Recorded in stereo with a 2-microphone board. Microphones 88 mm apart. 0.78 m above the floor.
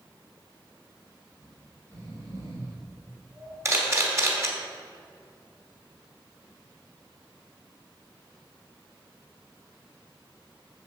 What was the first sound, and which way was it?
Snoring, 45° right (ahead or behind).